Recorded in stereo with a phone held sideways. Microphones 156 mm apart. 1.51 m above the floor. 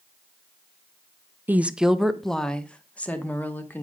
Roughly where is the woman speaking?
Centre.